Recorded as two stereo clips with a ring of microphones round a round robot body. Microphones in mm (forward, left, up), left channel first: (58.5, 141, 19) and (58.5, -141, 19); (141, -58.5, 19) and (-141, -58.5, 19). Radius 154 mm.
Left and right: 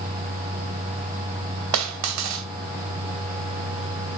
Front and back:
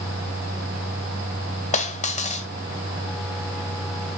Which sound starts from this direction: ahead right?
A dropped coin, at 1.7 s.